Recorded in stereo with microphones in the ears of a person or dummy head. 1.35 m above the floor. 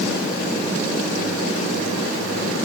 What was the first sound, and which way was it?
Only background noise.